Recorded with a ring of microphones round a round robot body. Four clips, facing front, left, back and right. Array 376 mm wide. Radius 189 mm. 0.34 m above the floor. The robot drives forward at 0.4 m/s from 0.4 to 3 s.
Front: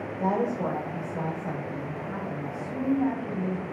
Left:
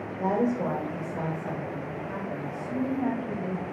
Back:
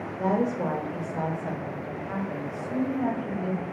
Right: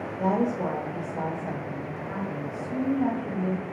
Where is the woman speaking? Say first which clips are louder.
Even, back 1 dB; 175° right, 0.9 m; by 3.6 s straight behind, 1.6 m.